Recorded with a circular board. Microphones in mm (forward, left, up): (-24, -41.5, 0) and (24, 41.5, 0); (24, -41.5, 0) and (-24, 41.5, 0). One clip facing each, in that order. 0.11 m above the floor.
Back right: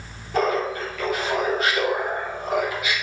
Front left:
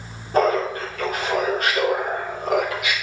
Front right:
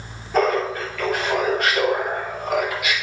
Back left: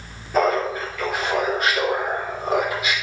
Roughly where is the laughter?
Ahead left.